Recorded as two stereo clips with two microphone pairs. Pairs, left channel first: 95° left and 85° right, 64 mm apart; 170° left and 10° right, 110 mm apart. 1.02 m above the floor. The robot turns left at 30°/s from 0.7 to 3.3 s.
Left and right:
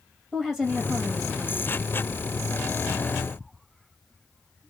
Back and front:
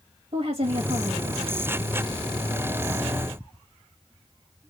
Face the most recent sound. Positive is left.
turn(degrees=-80)